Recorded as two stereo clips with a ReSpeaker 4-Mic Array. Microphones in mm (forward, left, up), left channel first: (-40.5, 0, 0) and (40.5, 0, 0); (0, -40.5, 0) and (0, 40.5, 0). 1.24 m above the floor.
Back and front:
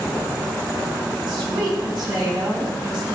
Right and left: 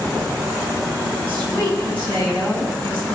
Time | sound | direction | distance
1.3 | a woman speaking | 20° right | 4 m